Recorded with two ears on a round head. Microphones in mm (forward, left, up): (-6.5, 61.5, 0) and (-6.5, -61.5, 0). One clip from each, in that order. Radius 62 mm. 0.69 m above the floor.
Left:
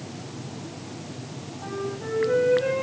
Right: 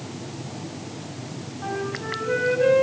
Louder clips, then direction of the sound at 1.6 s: Right 3 dB; 30° right (ahead or behind).